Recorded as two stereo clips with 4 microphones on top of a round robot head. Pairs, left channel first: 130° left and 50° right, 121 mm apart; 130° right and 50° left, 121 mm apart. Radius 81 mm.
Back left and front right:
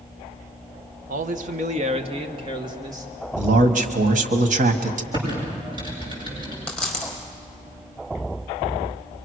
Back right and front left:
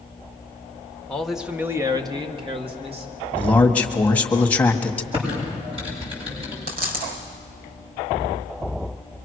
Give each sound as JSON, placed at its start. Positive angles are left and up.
{"t": 1.1, "sound": "a man speaking", "azimuth_deg": -50, "distance_m": 1.3}
{"t": 3.4, "sound": "a man speaking", "azimuth_deg": -50, "distance_m": 1.7}
{"t": 5.1, "sound": "typing on a keyboard", "azimuth_deg": 5, "distance_m": 8.0}
{"t": 6.7, "sound": "a dropped coin", "azimuth_deg": 50, "distance_m": 4.5}